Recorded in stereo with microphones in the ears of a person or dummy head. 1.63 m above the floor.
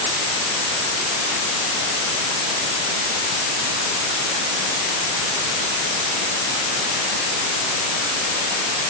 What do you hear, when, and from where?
Only background noise.